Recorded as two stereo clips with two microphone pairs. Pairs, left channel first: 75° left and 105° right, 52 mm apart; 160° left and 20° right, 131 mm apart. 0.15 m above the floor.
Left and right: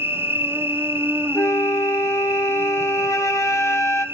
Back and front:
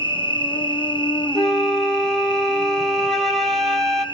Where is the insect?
145° right, 1.3 m.